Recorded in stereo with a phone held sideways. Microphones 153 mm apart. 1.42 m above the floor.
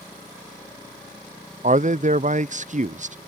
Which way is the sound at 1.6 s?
50° right (ahead or behind).